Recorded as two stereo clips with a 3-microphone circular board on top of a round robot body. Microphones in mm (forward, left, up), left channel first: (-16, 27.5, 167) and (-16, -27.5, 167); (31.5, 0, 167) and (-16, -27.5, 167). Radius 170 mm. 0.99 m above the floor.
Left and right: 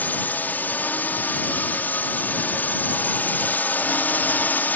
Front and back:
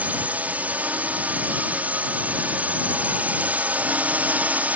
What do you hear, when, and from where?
0.0 s a drone: 145° left